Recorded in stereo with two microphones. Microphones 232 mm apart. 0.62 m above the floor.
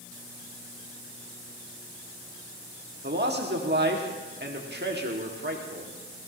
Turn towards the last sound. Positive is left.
turn(degrees=-45)  # may be behind; listen again after turning